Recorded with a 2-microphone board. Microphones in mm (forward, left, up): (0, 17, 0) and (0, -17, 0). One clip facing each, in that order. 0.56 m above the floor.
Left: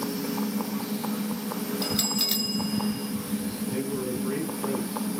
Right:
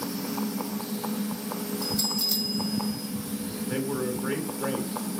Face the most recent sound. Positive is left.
turn(degrees=-75)  # may be behind; listen again after turning